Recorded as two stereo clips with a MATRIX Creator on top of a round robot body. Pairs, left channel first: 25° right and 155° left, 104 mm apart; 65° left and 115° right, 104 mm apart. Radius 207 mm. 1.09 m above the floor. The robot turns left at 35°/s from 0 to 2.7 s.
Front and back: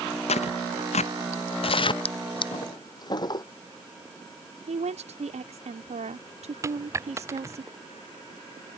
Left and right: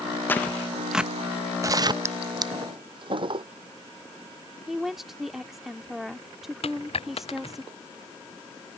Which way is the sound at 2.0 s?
50° right.